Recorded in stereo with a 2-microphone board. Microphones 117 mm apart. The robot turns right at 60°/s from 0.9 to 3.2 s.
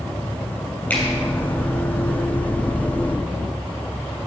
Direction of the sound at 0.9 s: 10° left (ahead or behind).